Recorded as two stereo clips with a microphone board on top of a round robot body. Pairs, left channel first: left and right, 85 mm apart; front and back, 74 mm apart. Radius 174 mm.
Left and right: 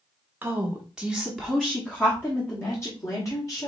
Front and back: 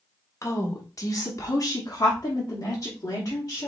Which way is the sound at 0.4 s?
30° right.